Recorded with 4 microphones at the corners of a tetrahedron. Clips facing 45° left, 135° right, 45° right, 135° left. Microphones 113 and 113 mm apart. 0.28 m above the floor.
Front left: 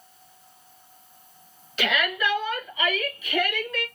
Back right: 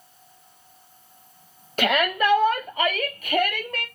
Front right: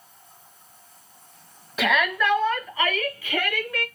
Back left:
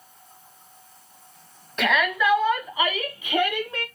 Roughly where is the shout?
Behind right.